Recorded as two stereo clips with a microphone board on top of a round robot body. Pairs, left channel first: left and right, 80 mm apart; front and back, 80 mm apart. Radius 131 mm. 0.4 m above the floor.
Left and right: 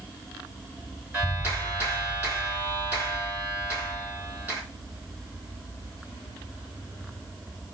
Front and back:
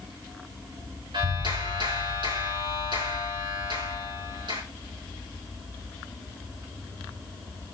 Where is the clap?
165° right, 4 m.